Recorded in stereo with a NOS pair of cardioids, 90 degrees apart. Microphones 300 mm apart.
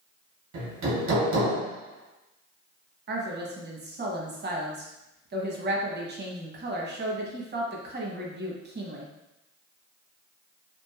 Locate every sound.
0.5 s hammering: 65° right, 1.4 m
3.1 s a woman speaking: 35° right, 0.9 m